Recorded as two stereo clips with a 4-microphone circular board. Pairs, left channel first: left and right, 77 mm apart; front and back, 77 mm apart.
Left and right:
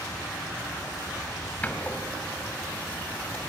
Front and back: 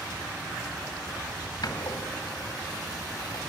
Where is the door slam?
20° left, 1.9 m.